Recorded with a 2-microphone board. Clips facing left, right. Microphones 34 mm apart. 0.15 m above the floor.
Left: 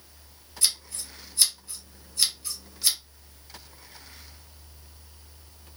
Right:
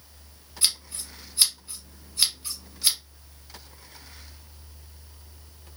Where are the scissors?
30° right (ahead or behind), 1.1 m.